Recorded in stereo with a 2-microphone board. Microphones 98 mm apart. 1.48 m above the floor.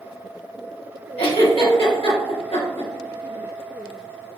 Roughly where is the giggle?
Left.